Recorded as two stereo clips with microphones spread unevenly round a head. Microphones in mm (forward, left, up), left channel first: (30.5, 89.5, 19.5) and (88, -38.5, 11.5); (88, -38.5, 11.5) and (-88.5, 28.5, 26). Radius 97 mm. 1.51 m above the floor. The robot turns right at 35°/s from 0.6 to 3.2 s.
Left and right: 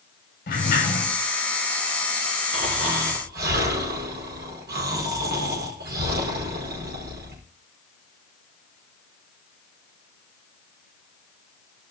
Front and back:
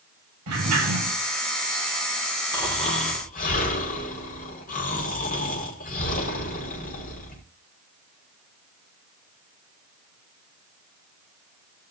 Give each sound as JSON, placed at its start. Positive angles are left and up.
{"t": 0.5, "sound": "a sliding door", "azimuth_deg": 145, "distance_m": 9.5}
{"t": 2.5, "sound": "snoring", "azimuth_deg": -90, "distance_m": 5.0}